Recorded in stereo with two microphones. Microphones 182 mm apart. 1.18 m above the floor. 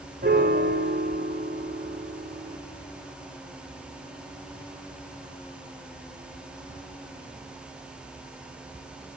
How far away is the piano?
About 2.5 m.